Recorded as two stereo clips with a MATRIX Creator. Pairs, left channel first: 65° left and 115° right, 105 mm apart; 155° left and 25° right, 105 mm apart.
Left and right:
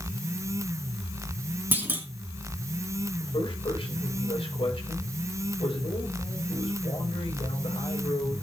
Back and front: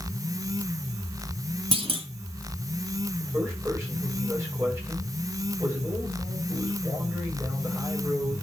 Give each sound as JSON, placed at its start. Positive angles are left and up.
{"t": 1.7, "sound": "a clunk", "azimuth_deg": -45, "distance_m": 2.0}
{"t": 3.2, "sound": "a man speaking", "azimuth_deg": 40, "distance_m": 6.5}